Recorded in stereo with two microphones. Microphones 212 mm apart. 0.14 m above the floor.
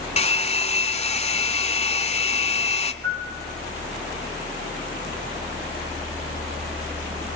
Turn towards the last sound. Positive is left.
turn(degrees=-65)  # may be behind; listen again after turning